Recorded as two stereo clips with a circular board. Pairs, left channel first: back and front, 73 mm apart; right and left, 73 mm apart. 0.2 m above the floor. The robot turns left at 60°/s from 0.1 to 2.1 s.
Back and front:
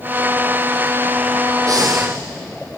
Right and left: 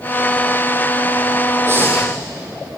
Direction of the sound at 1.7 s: 35° left.